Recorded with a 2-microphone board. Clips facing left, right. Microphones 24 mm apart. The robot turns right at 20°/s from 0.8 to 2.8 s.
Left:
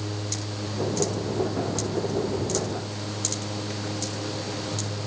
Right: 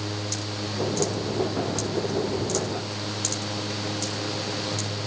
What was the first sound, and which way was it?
Only background noise.